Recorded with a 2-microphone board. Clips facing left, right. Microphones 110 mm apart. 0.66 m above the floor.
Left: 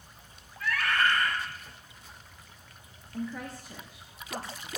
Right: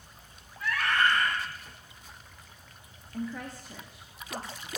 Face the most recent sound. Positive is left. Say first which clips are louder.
# even
turn(degrees=0)  # may be behind; listen again after turning